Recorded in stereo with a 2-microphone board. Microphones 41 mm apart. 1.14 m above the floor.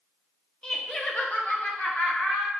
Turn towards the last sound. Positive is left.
turn(degrees=65)  # may be behind; listen again after turning